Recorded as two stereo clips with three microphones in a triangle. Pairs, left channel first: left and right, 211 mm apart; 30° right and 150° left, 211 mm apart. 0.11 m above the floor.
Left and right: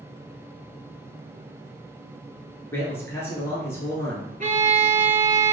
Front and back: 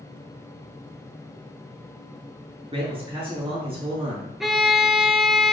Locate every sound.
2.7 s a man speaking: 150° left, 1.3 m
4.4 s a violin: 120° right, 0.7 m